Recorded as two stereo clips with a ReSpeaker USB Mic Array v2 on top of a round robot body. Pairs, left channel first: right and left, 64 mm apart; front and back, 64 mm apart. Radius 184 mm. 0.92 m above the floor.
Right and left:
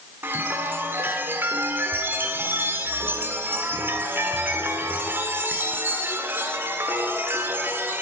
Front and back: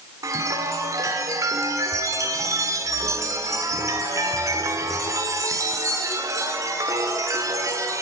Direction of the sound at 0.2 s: 150° left.